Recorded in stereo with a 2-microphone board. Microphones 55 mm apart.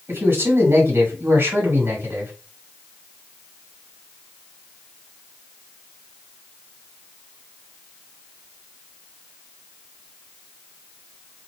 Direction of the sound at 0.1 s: 50° right (ahead or behind).